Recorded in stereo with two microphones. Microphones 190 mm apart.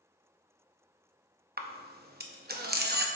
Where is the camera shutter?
55° right (ahead or behind), 0.7 m.